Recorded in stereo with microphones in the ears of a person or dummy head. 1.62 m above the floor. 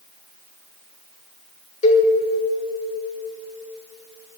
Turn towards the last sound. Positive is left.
turn(degrees=45)  # may be behind; listen again after turning